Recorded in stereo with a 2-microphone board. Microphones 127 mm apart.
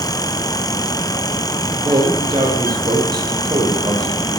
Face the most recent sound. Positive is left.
turn(degrees=-35)  # may be behind; listen again after turning